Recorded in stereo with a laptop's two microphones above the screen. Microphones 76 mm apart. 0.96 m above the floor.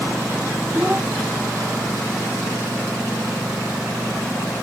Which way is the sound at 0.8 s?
20° right (ahead or behind).